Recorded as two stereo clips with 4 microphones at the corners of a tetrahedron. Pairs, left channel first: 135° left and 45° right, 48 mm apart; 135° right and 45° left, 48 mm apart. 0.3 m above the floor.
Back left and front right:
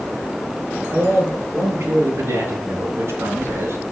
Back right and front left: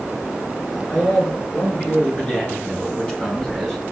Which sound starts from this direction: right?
A man speaking, at 0.9 s.